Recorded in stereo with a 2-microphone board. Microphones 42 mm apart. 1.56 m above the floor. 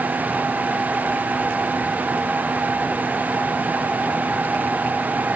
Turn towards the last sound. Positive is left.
No sound to turn to.